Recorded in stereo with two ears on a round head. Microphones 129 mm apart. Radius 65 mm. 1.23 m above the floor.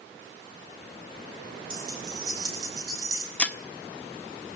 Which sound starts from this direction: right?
Keys jangling, at 1.7 s.